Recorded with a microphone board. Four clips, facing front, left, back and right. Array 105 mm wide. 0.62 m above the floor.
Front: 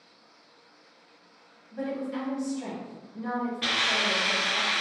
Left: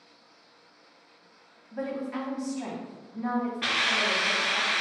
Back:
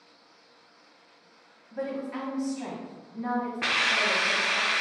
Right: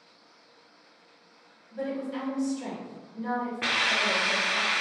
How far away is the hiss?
About 0.6 m.